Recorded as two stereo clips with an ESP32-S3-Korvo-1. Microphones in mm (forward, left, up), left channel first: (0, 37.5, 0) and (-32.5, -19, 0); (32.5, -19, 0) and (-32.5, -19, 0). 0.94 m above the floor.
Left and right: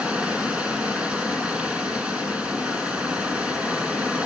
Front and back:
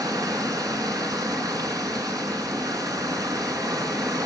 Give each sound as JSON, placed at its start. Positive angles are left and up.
{"t": 0.0, "sound": "running water", "azimuth_deg": 170, "distance_m": 3.0}